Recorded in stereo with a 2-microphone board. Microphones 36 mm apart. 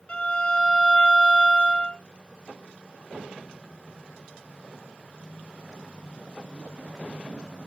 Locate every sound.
0.1 s a violin: 35° left (ahead or behind), 0.6 m